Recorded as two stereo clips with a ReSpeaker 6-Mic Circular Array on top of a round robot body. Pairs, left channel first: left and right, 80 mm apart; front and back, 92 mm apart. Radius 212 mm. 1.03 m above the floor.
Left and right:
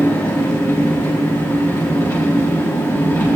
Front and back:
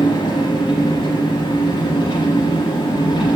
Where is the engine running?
40° left, 8.5 m.